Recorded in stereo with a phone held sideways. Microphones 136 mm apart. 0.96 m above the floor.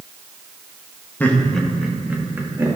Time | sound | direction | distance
1.2 | laughter | 15° left (ahead or behind) | 1.4 m